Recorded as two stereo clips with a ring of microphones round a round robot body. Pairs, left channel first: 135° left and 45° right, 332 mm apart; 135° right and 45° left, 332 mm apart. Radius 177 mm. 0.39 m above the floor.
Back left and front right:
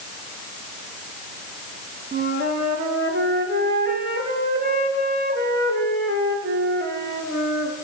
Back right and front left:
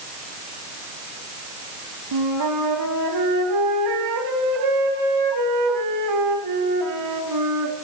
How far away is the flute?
About 2 m.